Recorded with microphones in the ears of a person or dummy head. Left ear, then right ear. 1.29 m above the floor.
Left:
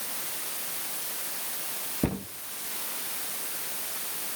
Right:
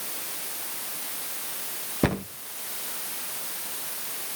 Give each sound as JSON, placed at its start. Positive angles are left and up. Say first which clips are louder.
{"t": 2.0, "sound": "a cupboard door", "louder": "right 6 dB", "side_deg": -50, "distance_m": 0.7}